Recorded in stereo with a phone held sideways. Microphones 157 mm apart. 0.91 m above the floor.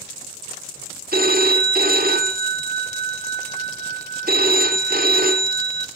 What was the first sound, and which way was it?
A phone ringing, 70° right (ahead or behind).